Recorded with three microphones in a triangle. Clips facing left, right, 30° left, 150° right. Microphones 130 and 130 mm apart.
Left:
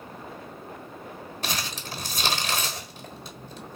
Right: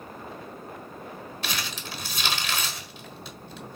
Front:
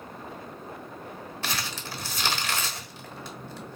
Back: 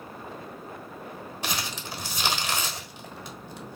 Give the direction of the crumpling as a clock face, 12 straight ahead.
7 o'clock.